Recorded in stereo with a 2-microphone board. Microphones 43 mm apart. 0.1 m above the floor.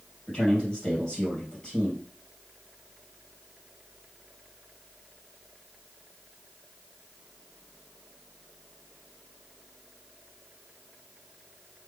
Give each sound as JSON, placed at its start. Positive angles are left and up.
{"t": 0.3, "sound": "a man speaking", "side_deg": 20, "distance_m": 2.5}